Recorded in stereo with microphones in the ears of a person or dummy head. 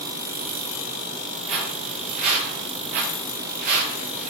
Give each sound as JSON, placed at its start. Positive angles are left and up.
{"t": 1.5, "sound": "footsteps", "side_deg": -45, "distance_m": 6.5}